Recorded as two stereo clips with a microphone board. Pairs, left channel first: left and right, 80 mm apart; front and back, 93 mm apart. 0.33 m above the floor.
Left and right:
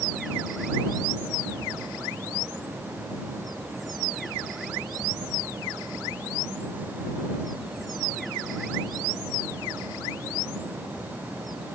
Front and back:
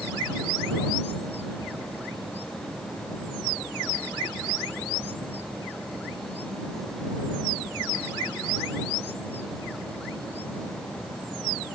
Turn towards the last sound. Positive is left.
No sound to turn to.